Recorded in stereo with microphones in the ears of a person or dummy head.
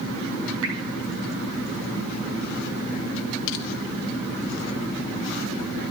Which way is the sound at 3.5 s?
70° left (ahead or behind).